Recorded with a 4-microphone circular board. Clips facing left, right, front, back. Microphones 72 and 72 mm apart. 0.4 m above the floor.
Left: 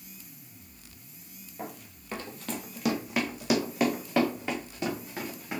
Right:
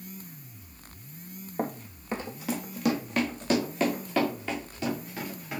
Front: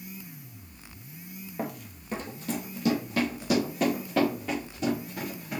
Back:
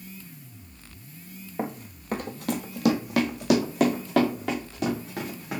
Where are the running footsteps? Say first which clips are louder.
Right 8 dB, back 3 dB; 120° right, 0.7 m; by 5.6 s 160° left, 3 m.